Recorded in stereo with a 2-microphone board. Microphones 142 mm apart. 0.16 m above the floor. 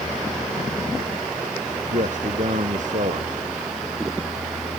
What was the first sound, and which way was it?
A man speaking, 60° right (ahead or behind).